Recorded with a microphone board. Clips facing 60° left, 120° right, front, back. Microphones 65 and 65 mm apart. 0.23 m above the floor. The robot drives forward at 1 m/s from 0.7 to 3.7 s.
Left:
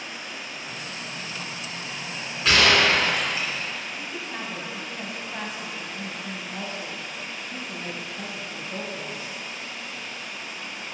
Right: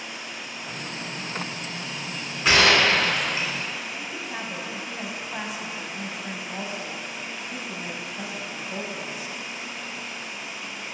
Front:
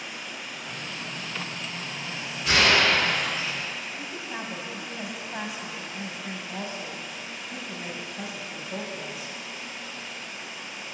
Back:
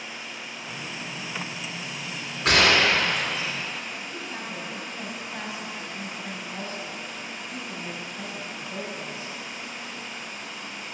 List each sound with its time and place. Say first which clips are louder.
0.0 s running water: even, even; 10° left, 2 m; by 10.9 s 165° left, 1.3 m
2.5 s a gunshot: right 1 dB, back 1 dB; 170° left, 2 m; by 3.5 s 175° left, 3 m
4.0 s a woman speaking: even, even; 55° right, 1.2 m